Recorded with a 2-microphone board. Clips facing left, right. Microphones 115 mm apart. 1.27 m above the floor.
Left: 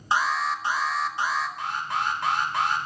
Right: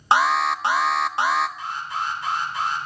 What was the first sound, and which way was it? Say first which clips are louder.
An alarm: right 6 dB; 75° right (ahead or behind).